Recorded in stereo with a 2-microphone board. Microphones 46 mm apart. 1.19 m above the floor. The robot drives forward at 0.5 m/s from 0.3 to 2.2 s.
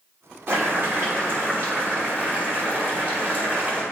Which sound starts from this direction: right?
Boiling, at 0.5 s.